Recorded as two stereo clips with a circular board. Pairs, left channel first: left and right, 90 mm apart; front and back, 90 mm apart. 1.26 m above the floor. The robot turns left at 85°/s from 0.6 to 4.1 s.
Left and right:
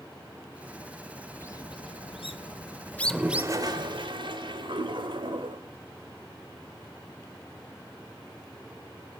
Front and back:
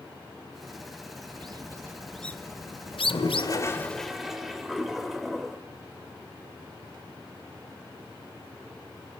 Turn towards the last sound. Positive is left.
turn(degrees=-90)